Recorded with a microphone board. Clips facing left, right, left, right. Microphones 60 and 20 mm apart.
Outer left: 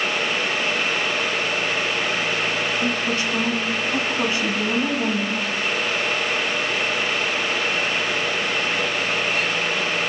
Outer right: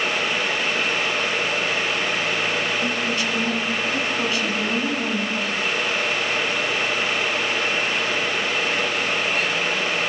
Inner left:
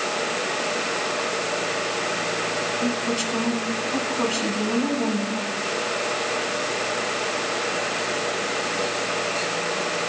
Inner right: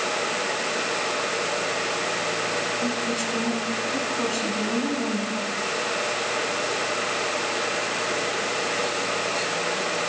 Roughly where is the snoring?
No snoring in this recording.